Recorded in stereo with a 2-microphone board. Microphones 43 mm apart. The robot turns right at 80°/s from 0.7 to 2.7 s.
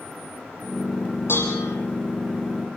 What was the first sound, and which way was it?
Dishes clattering, 60° left.